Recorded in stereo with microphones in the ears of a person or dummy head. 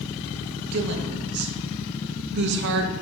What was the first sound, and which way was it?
A woman speaking, 55° right (ahead or behind).